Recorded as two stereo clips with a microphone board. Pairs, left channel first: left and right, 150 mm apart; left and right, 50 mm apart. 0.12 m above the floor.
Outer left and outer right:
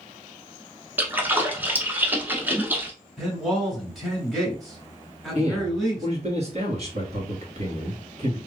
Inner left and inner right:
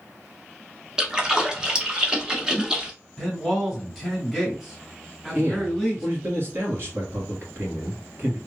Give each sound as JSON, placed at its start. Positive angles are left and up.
{"t": 1.0, "sound": "a splash", "side_deg": -15, "distance_m": 1.0}
{"t": 3.2, "sound": "a man speaking", "side_deg": 0, "distance_m": 2.0}
{"t": 5.3, "sound": "a man speaking", "side_deg": -45, "distance_m": 1.8}